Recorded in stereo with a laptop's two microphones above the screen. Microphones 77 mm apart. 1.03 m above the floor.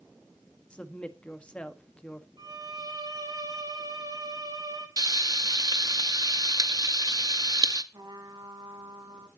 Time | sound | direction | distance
0.7 | a woman speaking | 15° left (ahead or behind) | 1.4 m
2.4 | a violin | 60° right (ahead or behind) | 2.0 m
5.0 | frying | 55° right (ahead or behind) | 0.6 m
7.9 | a trumpet | 60° right (ahead or behind) | 2.5 m